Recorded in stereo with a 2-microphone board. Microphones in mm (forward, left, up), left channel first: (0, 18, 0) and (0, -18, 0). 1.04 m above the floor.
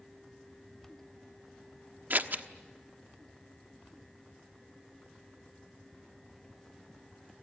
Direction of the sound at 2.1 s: 60° right (ahead or behind).